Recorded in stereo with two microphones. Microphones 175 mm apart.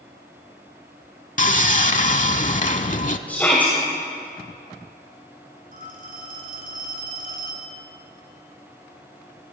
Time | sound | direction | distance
1.4 | sawing | 45° left (ahead or behind) | 0.7 m
3.3 | a shout | 10° left (ahead or behind) | 2.5 m
5.7 | a phone ringing | 55° right (ahead or behind) | 3.5 m